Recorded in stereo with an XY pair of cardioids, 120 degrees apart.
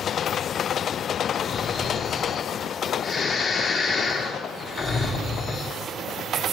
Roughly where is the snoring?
Ahead left.